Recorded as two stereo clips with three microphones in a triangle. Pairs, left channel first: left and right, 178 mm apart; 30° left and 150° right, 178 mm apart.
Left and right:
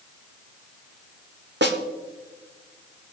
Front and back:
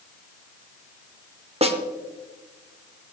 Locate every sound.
1.6 s a snare drum: 95° right, 1.1 m